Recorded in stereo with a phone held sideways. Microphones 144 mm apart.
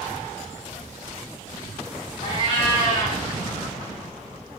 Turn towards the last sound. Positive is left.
turn(degrees=35)  # may be behind; listen again after turning